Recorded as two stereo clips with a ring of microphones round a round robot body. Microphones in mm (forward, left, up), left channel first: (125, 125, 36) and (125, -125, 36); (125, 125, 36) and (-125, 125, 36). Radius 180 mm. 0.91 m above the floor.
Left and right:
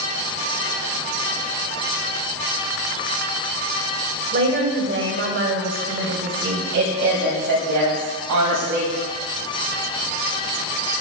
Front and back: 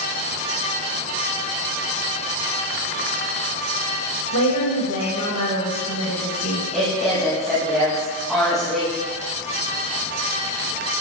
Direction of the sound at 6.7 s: 90° right.